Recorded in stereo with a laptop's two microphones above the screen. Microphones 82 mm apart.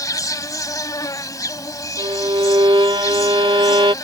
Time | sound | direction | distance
0.0 | an insect | 45° left (ahead or behind) | ?
2.0 | a violin | 85° right | ?